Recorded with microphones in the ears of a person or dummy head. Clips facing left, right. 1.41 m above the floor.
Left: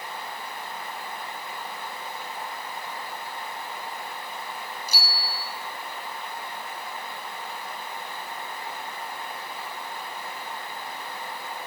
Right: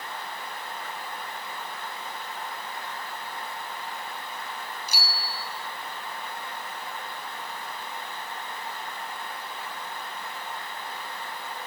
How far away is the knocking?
I don't hear knocking.